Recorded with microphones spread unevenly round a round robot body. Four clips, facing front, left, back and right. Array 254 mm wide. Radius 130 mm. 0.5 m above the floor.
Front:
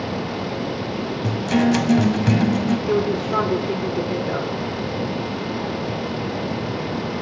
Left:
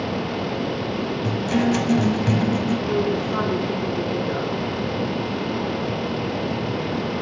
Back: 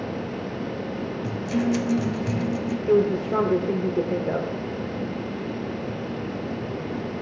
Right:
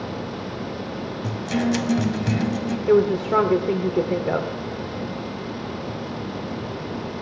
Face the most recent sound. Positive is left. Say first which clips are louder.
# right 4 dB, even
turn(degrees=-85)